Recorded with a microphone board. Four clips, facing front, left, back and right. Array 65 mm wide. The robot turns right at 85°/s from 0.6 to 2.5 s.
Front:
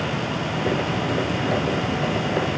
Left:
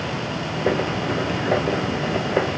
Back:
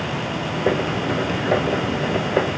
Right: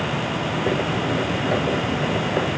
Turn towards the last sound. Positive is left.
No sound to turn to.